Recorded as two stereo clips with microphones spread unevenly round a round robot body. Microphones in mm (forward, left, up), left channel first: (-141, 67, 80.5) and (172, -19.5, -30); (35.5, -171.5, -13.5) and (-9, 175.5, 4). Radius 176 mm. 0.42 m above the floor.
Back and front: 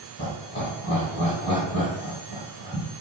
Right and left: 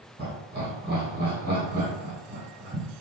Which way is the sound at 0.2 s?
70° left.